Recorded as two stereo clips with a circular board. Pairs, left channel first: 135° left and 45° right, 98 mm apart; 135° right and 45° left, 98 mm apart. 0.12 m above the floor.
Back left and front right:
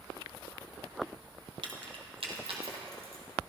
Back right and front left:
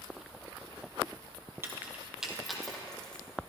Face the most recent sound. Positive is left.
turn(degrees=-55)